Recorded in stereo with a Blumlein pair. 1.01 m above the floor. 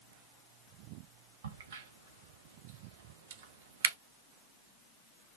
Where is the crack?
60° right, 0.5 m.